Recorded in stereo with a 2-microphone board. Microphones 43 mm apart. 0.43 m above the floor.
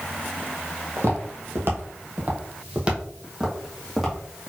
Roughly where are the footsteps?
Right.